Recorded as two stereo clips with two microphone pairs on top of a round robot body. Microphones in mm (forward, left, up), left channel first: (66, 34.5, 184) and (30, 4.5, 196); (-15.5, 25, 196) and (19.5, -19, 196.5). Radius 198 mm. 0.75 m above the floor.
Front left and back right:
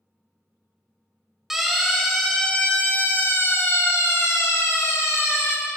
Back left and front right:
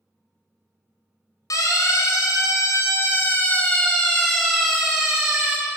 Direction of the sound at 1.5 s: 135° left.